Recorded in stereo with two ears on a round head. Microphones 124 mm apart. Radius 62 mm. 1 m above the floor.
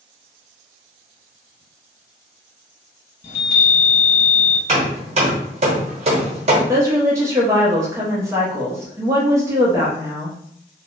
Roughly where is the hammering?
Right.